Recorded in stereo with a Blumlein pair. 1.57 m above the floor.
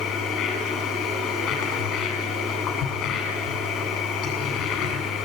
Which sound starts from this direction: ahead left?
A machine running, at 0.0 s.